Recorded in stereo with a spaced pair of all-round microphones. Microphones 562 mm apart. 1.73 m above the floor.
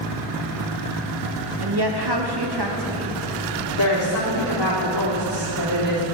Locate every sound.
1.6 s a woman speaking: 45° right (ahead or behind), 1.3 m
3.8 s a woman speaking: 45° right (ahead or behind), 4 m